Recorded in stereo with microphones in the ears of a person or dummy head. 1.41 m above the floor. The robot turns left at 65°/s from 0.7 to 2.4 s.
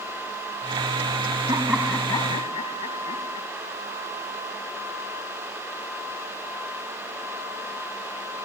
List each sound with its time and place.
1.5 s laughter: 165° right; by 3.5 s 135° left